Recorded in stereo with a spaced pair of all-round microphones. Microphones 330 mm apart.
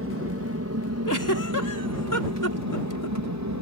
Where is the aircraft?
45° right (ahead or behind); by 3.6 s 60° right (ahead or behind).